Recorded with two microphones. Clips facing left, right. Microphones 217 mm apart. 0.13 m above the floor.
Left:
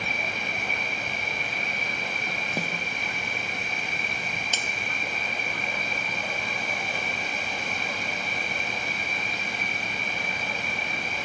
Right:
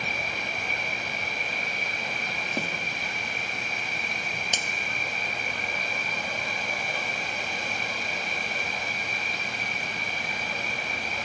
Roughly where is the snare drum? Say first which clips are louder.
Even; centre.